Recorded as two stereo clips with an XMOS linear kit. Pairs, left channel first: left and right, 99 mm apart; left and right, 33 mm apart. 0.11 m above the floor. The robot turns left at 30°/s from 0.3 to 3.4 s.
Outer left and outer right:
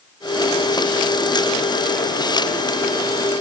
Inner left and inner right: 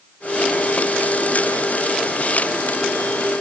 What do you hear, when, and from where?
Only background noise.